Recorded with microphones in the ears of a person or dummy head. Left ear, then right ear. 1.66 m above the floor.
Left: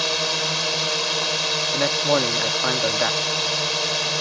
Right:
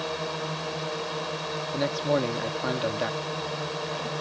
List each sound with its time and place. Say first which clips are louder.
0.0 s a drone: left 9 dB; 70° left (ahead or behind)
1.7 s a man speaking: left 4 dB; 30° left (ahead or behind)